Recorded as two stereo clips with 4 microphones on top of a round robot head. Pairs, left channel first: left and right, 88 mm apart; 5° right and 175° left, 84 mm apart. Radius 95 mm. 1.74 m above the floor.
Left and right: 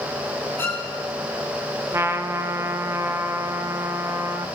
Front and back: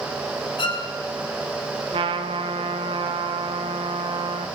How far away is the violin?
About 3.5 m.